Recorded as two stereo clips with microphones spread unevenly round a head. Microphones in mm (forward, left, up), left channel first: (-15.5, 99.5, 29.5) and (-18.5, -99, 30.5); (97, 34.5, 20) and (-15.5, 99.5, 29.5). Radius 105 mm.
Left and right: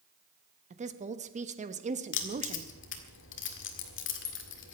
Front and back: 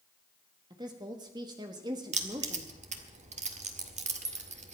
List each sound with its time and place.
0.7 s a woman speaking: 145° right, 1.3 m
2.1 s keys jangling: 115° left, 1.8 m